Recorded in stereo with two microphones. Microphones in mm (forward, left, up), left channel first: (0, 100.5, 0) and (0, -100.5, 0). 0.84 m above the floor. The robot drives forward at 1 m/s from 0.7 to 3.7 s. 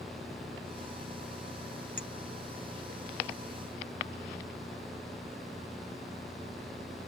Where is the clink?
70° left (ahead or behind); by 2.1 s 65° left (ahead or behind).